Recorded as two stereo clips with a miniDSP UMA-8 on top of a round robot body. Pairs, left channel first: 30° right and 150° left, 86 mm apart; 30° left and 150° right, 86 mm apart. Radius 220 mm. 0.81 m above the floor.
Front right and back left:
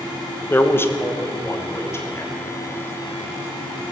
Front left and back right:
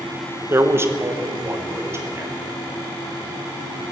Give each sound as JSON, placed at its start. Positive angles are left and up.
{"t": 0.5, "sound": "a man speaking", "azimuth_deg": -90, "distance_m": 1.1}